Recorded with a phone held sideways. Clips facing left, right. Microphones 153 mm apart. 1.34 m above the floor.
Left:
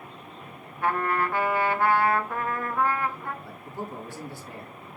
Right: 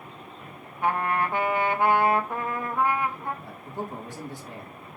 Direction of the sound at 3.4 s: 20° right (ahead or behind).